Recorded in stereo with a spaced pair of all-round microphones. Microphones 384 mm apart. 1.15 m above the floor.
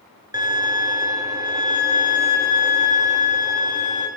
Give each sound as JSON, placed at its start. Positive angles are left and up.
{"t": 0.3, "sound": "a violin", "side_deg": -10, "distance_m": 1.2}